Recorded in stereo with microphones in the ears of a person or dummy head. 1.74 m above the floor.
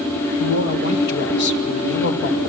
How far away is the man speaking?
About 2.0 m.